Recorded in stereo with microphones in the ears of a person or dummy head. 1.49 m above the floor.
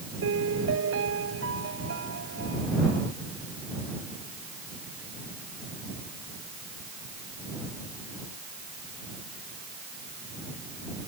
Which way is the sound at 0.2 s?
85° right.